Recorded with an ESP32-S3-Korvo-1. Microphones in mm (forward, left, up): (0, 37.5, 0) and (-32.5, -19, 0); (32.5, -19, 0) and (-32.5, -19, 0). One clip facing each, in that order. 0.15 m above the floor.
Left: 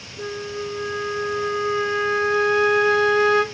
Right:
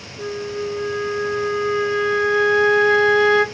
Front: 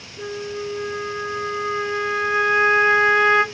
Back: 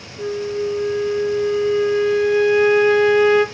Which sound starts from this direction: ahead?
A flute, at 0.2 s.